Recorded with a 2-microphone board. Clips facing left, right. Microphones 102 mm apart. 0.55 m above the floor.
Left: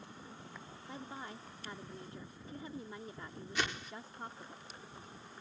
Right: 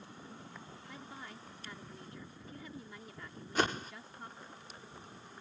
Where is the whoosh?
45° right (ahead or behind).